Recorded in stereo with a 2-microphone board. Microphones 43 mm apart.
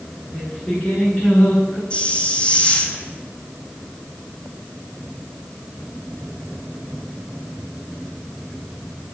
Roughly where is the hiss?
Left.